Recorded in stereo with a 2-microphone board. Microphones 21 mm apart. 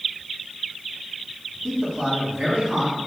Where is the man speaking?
55° right (ahead or behind), 1.7 m.